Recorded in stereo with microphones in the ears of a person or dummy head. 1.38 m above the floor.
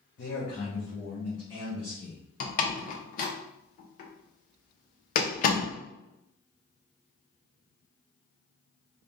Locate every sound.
0.2 s a man speaking: 45° left (ahead or behind), 0.9 m; by 2.2 s 10° left (ahead or behind), 1.7 m
2.4 s a door slam: 50° left (ahead or behind), 0.8 m